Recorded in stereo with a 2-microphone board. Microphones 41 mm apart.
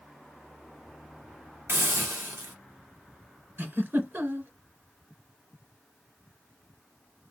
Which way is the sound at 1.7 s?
80° right.